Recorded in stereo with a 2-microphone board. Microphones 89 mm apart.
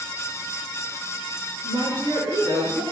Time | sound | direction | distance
1.6 | a woman speaking | 65° right (ahead or behind) | 4.5 m